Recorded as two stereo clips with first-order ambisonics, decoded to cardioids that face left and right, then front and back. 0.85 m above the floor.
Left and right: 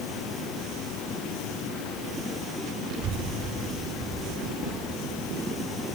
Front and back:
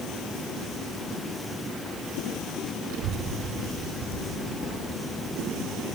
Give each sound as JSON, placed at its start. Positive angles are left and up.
{"t": 2.9, "sound": "a child speaking", "azimuth_deg": -150, "distance_m": 3.0}